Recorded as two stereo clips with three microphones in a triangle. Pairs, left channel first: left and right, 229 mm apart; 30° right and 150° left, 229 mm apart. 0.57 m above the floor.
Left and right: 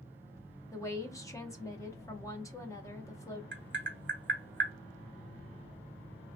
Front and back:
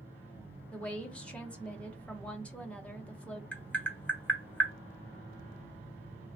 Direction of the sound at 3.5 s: 115° right.